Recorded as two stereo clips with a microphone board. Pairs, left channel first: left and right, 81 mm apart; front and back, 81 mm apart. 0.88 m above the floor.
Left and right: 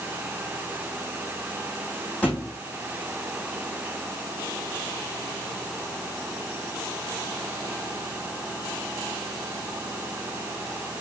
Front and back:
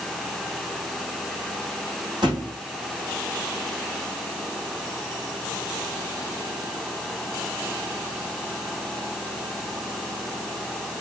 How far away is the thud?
About 6 m.